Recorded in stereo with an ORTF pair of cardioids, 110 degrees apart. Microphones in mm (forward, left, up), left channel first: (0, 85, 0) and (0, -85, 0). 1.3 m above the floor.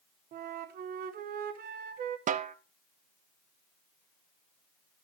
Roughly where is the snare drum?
Ahead right.